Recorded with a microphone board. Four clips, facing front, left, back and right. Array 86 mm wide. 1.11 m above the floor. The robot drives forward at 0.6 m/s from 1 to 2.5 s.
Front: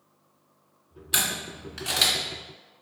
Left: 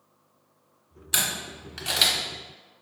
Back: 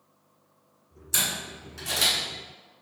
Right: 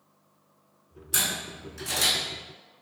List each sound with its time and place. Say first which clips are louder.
1.1 s a camera shutter: left 1 dB, front 2 dB; 35° left, 1.1 m; by 2.1 s 75° left, 0.8 m